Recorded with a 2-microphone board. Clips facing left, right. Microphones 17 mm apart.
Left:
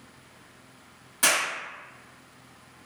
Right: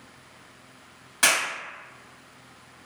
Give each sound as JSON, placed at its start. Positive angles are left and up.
{"t": 1.2, "sound": "a clap", "side_deg": -35, "distance_m": 1.0}